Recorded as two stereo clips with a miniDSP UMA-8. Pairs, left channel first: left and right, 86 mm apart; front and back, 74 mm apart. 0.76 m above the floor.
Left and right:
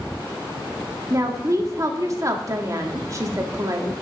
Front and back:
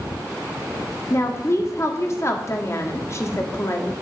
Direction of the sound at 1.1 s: 45° right.